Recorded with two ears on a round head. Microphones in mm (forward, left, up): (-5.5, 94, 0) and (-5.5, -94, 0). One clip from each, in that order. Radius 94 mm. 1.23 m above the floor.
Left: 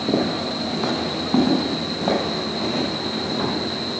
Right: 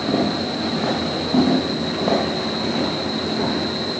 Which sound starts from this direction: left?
Footsteps, at 0.1 s.